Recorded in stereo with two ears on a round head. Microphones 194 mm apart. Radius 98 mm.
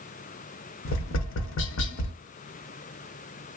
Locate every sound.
0.8 s tapping: 60° left (ahead or behind), 0.6 m